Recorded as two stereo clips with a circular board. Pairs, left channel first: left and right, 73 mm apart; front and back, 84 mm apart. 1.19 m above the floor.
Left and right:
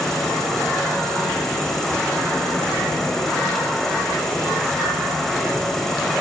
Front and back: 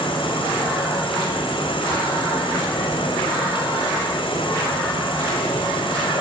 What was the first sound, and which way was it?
An insect, 5° left.